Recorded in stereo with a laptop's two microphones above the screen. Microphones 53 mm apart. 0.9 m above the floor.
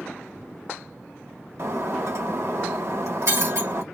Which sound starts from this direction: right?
Breaking glass, at 1.6 s.